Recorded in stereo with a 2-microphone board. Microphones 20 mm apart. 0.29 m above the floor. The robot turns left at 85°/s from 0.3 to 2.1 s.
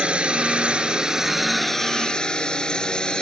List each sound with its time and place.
0.0 s a drone: 75° right; by 3.2 s 130° left